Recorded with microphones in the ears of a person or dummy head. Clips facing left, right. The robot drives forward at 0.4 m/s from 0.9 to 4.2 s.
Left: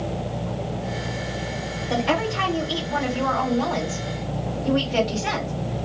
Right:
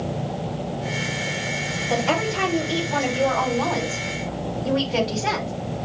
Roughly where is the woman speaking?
Centre.